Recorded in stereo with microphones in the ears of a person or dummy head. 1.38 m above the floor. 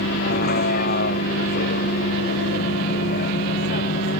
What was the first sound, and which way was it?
A vehicle, 50° left (ahead or behind).